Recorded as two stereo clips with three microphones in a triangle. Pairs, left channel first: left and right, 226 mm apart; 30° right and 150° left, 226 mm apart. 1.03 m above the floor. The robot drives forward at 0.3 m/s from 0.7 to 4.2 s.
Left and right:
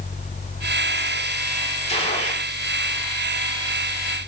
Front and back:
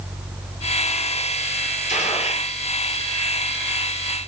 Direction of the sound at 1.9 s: 25° left.